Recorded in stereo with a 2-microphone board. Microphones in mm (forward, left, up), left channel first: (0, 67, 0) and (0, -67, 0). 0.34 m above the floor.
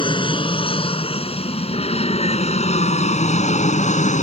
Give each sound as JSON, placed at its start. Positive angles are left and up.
{"t": 0.0, "sound": "an aircraft", "side_deg": 40}